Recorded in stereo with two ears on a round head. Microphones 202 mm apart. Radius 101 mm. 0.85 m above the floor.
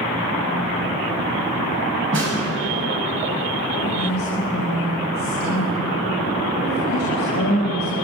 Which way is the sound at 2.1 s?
60° right (ahead or behind).